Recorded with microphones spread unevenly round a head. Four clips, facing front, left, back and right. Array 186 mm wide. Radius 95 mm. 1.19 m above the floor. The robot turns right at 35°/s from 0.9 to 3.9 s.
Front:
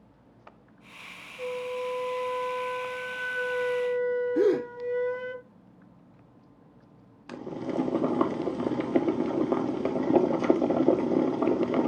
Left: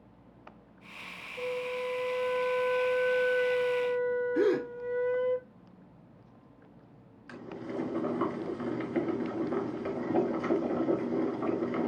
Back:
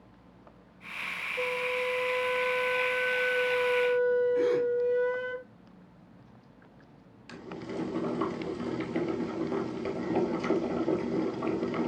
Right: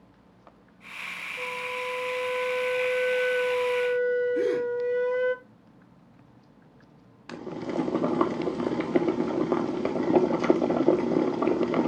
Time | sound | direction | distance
1.4 | a flute | 175° right | 2 m
4.3 | a gasp | 15° left | 1.6 m
7.3 | boiling | 50° right | 1.7 m